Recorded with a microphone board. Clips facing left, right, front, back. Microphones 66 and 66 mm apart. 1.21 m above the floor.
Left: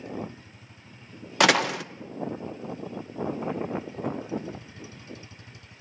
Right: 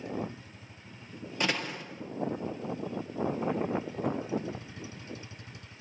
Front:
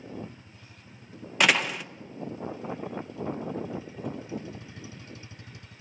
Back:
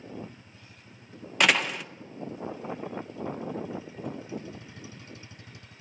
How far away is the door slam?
About 0.7 m.